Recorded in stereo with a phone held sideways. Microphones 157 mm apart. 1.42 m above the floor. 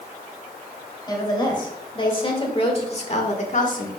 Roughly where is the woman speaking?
Left.